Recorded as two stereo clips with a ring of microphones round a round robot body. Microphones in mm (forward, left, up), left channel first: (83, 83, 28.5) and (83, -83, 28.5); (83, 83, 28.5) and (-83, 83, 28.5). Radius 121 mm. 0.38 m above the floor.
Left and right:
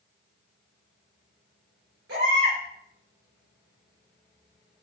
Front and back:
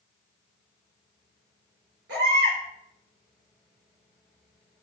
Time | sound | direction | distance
2.1 | a baby crying | 130° right | 6 m